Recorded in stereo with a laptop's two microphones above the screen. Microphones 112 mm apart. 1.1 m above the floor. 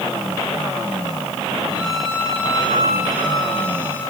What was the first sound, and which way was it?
A violin, 35° left (ahead or behind).